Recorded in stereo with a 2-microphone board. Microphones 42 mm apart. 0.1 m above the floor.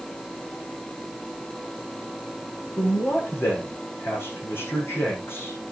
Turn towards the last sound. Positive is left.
turn(degrees=75)  # may be behind; listen again after turning